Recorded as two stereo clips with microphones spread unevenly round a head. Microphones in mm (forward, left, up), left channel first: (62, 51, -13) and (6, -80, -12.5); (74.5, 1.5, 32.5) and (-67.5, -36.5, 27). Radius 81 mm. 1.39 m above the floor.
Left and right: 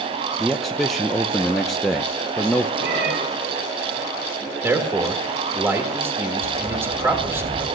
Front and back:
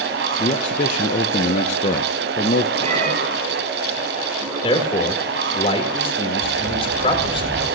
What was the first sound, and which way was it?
A man speaking, 25° right.